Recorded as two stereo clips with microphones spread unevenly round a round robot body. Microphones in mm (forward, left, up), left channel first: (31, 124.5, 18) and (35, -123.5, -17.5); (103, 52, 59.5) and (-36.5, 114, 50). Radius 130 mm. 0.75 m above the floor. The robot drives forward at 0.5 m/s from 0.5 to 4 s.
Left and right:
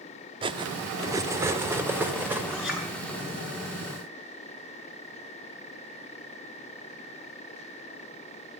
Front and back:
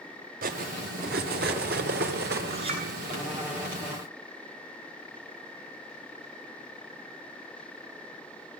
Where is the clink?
175° right, 7.5 m.